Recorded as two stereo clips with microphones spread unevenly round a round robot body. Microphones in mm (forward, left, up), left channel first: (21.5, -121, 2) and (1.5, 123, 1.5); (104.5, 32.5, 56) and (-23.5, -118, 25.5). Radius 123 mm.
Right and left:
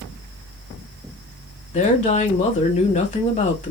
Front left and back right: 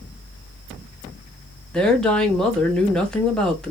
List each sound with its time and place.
1.7 s a woman speaking: 45° right, 1.3 m